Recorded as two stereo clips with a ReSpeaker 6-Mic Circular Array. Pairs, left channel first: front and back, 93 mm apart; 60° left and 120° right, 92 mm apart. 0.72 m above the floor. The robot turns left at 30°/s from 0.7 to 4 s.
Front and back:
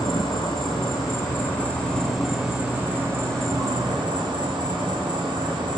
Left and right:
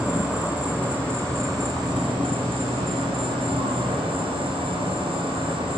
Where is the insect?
45° right, 3 m; by 5.8 s 145° right, 3 m.